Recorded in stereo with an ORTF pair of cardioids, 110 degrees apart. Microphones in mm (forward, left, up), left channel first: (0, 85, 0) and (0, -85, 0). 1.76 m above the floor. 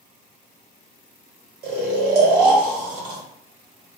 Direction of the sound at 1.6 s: 70° right.